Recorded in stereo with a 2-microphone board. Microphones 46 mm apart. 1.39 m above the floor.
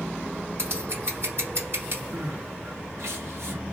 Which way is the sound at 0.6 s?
60° right (ahead or behind).